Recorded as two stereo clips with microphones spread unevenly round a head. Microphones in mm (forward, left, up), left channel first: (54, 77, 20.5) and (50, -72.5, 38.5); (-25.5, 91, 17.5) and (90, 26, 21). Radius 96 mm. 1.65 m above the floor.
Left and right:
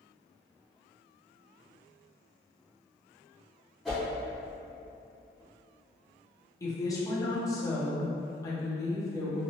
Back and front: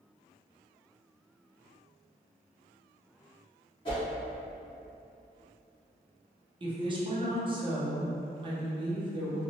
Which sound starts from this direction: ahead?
A woman speaking, at 6.6 s.